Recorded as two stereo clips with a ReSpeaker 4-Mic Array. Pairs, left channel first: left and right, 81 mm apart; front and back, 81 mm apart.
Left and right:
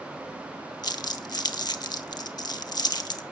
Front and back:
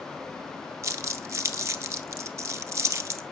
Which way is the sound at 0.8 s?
125° left.